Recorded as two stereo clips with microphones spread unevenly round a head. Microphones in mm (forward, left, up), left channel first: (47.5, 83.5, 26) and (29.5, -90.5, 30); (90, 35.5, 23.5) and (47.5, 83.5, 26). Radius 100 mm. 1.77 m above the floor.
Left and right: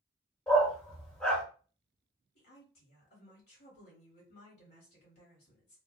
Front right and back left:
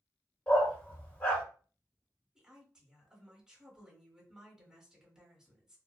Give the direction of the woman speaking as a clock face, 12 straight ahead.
10 o'clock.